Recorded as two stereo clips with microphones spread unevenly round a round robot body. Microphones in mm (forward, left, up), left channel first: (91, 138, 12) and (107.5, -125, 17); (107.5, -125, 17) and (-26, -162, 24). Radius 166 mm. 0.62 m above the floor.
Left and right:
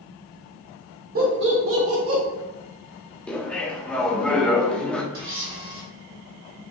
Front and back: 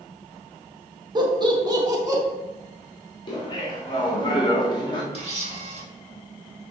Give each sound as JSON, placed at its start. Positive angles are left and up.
{"t": 1.1, "sound": "laughter", "azimuth_deg": -120, "distance_m": 1.0}
{"t": 3.3, "sound": "laughter", "azimuth_deg": 10, "distance_m": 1.3}
{"t": 5.1, "sound": "a camera shutter", "azimuth_deg": -120, "distance_m": 1.6}